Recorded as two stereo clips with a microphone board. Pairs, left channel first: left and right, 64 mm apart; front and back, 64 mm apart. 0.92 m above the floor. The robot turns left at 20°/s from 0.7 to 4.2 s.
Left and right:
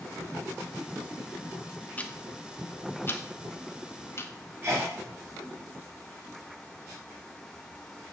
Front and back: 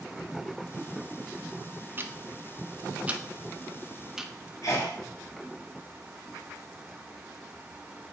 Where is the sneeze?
25° right, 2.5 m.